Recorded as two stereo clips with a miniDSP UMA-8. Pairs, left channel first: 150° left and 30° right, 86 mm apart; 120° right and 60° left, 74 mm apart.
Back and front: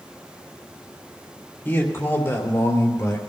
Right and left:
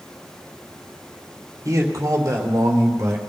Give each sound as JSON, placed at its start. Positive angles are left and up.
{"t": 1.6, "sound": "a man speaking", "azimuth_deg": 90, "distance_m": 3.5}